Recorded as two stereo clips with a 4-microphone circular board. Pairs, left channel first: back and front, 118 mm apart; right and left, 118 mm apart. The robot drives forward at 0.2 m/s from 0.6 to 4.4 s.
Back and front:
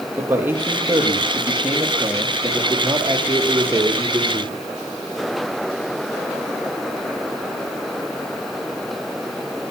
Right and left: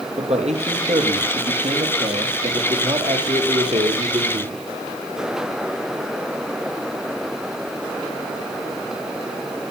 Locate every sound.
0.2 s a man speaking: 70° left, 5 m; by 4.6 s 80° left, 5 m